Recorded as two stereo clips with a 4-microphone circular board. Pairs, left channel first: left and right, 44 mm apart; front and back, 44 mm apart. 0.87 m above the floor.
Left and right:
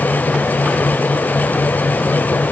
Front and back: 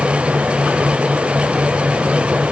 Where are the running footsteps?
No running footsteps in this recording.